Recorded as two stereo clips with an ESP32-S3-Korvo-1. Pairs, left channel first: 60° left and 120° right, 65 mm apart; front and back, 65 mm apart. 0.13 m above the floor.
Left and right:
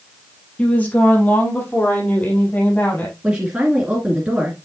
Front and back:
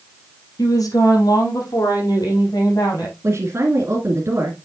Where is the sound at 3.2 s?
175° left, 1.9 m.